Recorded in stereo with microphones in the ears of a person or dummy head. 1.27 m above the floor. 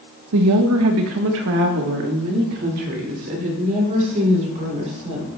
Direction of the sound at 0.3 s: 85° right.